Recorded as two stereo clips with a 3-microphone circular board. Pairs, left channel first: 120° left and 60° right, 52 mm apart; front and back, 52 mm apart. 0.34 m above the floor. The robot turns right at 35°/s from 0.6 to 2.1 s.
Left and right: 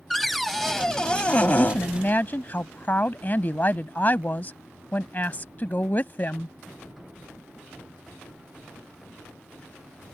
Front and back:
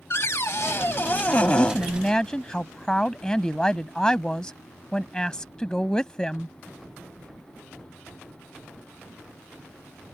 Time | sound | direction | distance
0.1 | a cupboard door | 30° left | ?
1.6 | a woman speaking | 55° left | ?